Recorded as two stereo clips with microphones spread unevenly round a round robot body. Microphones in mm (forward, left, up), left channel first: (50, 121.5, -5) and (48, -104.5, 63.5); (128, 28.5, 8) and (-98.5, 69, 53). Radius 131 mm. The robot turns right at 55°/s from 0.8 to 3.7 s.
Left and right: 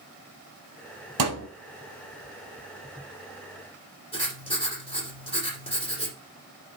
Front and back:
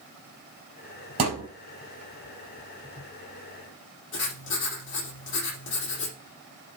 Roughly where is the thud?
Behind right.